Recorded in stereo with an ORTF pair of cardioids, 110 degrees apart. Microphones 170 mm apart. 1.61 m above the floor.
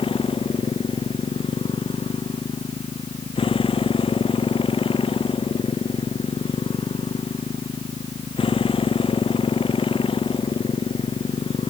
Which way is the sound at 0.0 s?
30° left.